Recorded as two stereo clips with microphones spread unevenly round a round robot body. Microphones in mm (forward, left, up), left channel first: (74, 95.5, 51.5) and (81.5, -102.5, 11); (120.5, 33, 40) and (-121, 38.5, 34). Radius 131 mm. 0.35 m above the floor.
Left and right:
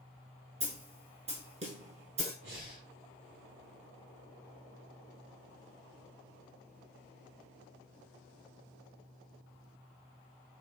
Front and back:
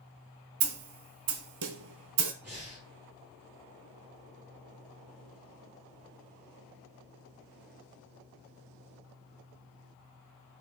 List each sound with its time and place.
0.6 s a snare drum: 155° right, 0.7 m
2.4 s breathing: 95° right, 2.5 m